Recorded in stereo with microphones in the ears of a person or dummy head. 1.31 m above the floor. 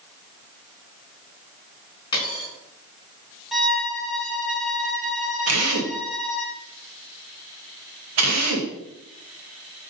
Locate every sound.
2.1 s a dropped coin: 25° left (ahead or behind), 4.5 m
3.5 s a violin: centre (ahead or behind), 1.4 m
5.5 s a drill: 80° right, 1.5 m